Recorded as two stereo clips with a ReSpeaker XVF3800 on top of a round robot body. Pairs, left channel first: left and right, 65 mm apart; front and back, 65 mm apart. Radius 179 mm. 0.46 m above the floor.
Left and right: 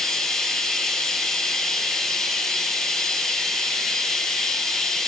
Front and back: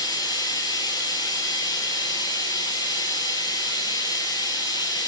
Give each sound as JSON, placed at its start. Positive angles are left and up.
{"t": 0.0, "sound": "running water", "azimuth_deg": 10, "distance_m": 5.5}